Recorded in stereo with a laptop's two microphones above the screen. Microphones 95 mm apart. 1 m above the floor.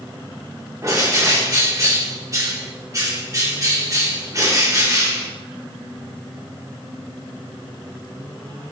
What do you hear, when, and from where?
0.8 s a bird: 35° right (ahead or behind), 1.5 m